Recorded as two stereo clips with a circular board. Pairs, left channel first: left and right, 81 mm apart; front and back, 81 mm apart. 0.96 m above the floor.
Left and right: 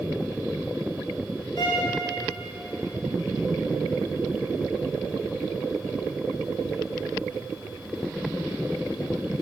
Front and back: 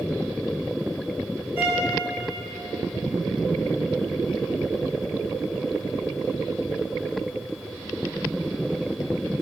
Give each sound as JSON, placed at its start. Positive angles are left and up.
{"t": 1.6, "sound": "a violin", "azimuth_deg": 115, "distance_m": 2.5}